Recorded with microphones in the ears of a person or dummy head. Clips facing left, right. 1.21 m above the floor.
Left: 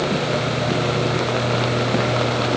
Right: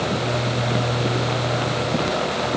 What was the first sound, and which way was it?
Only background noise.